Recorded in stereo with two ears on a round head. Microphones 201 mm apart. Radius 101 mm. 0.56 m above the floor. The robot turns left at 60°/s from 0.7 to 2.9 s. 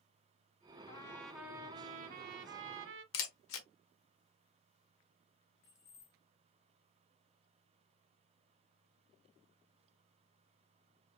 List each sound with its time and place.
0.9 s a trumpet: 25° left, 0.7 m; by 3.0 s 95° right, 0.7 m
3.1 s a camera shutter: 65° left (ahead or behind), 1.2 m
5.6 s keys jangling: 60° left (ahead or behind), 3 m